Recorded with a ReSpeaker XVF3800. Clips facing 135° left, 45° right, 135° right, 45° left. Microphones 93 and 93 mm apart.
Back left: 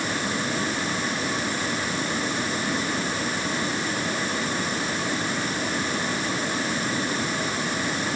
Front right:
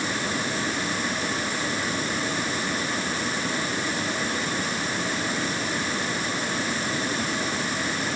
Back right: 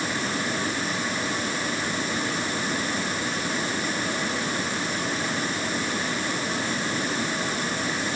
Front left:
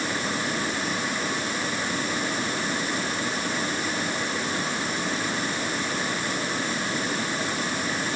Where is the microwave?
I don't hear a microwave.